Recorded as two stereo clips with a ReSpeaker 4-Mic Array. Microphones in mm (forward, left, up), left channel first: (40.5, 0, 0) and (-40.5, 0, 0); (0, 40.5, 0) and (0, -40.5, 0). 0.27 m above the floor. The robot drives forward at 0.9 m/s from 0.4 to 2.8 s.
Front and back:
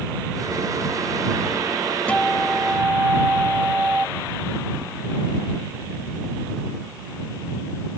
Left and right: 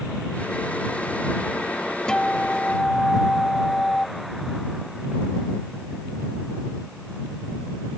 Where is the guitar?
35° left; by 4.1 s 150° left.